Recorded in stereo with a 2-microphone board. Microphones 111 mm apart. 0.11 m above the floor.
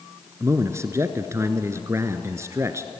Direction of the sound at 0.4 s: 25° right (ahead or behind).